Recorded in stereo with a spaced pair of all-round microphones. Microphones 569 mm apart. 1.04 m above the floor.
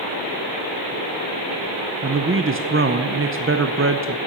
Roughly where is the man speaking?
Right.